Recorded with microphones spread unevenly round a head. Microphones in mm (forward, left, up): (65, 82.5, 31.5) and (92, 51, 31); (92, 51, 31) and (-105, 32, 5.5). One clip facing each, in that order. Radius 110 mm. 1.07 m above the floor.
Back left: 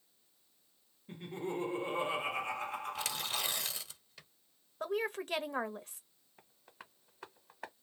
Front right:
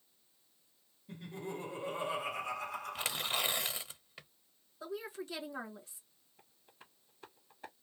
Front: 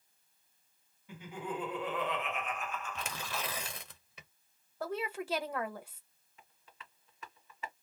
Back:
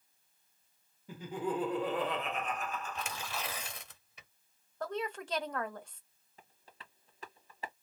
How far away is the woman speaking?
About 0.7 m.